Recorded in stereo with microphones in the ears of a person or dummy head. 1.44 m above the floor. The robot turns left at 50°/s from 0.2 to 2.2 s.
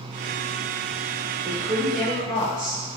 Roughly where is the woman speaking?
Behind.